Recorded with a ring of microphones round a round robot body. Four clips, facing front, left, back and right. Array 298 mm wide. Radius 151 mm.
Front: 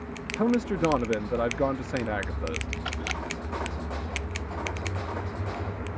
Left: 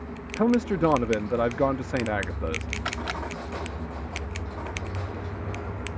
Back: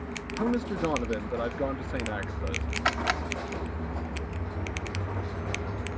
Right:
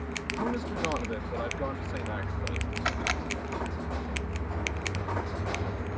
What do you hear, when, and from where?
0.3 s a man speaking: 70° left
2.9 s a camera shutter: 175° right